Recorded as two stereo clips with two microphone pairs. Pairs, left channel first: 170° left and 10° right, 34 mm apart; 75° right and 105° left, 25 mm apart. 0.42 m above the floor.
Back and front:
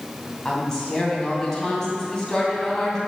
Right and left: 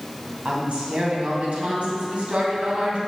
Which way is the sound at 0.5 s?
100° left.